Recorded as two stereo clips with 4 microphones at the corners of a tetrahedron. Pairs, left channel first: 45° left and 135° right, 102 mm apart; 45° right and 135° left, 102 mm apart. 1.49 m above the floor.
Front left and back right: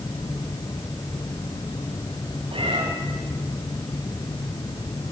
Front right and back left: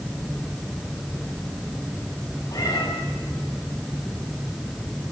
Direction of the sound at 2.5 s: 100° right.